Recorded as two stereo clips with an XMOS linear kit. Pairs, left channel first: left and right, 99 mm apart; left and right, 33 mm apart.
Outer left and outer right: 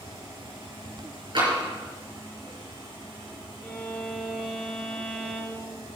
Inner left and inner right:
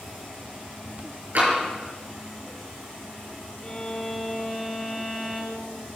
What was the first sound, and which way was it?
Tapping, 55° right (ahead or behind).